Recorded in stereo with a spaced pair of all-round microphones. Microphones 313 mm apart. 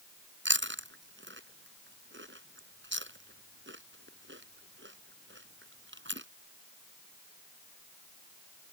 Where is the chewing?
40° right (ahead or behind).